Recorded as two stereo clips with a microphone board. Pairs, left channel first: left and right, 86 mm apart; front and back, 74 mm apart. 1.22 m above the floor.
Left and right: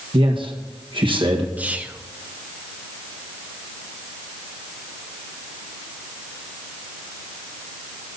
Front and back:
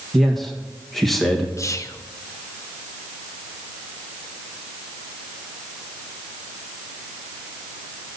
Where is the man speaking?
90° right, 1.6 m.